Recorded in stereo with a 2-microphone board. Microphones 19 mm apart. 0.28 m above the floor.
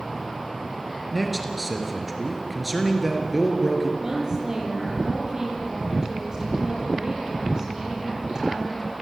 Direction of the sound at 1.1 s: 5° right (ahead or behind).